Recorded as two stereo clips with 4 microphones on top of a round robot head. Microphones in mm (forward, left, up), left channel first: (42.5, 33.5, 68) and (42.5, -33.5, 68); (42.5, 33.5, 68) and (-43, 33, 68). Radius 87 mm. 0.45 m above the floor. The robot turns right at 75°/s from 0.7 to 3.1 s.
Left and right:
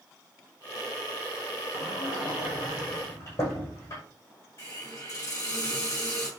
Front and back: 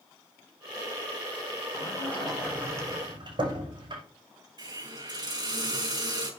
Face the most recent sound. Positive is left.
turn(degrees=145)